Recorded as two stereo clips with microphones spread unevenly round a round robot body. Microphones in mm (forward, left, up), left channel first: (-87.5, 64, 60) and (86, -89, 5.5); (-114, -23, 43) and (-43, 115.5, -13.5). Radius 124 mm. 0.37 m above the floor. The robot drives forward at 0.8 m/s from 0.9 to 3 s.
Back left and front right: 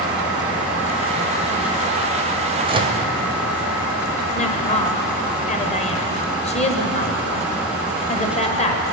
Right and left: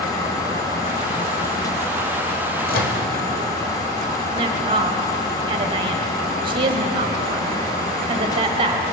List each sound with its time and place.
2.7 s a microwave: 85° right, 1.5 m; by 3.0 s 95° right, 1.5 m
4.3 s a woman speaking: 75° left, 1.7 m